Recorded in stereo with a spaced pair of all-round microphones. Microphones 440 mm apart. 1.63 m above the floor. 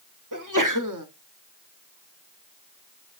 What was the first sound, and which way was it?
A sneeze, 45° right (ahead or behind).